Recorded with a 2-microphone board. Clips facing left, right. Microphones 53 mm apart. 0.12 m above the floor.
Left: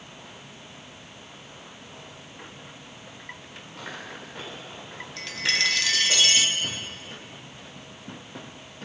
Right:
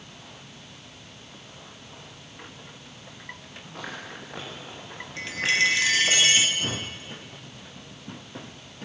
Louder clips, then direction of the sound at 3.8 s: Right 1 dB; 80° right.